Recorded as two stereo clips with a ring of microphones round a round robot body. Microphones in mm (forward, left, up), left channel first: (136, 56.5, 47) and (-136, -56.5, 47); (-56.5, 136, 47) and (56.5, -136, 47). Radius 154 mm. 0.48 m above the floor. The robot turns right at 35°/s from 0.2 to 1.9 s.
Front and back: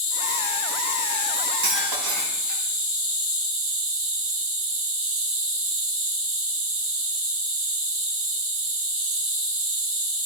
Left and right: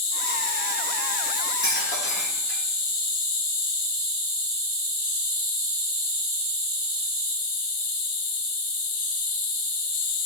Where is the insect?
95° left, 4 m; by 10.3 s 155° left, 4 m.